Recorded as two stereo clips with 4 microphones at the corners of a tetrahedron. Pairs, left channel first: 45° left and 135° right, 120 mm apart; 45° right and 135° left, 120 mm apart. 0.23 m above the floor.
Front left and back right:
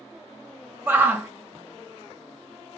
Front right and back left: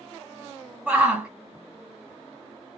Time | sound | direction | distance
0.9 | a shout | 170° right | 1.0 m